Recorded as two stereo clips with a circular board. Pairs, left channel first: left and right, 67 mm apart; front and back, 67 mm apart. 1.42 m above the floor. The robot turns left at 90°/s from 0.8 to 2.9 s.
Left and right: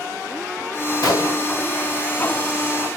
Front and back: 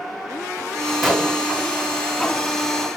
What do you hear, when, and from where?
1.0 s a gunshot: 90° left, 0.9 m; by 1.5 s 45° left, 0.9 m